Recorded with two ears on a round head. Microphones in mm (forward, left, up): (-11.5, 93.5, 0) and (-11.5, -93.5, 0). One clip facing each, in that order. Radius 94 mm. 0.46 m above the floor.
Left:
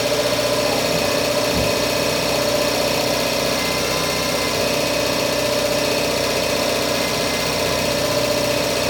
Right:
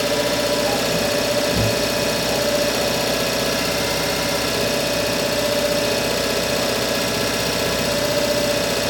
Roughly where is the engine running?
Centre.